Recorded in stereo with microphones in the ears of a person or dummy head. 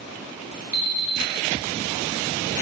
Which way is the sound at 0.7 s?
20° right (ahead or behind).